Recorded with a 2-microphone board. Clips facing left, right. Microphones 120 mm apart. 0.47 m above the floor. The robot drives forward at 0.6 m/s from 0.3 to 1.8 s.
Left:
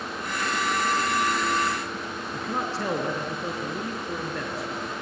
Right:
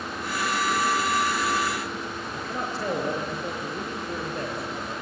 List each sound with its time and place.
2.3 s a man speaking: 75° left (ahead or behind), 5.5 m